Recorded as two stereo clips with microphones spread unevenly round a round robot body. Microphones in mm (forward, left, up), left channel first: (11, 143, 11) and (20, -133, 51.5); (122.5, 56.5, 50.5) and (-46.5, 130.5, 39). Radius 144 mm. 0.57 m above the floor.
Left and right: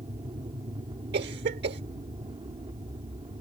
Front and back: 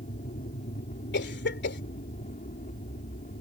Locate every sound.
0.0 s an aircraft: 20° right
1.1 s a cough: 35° right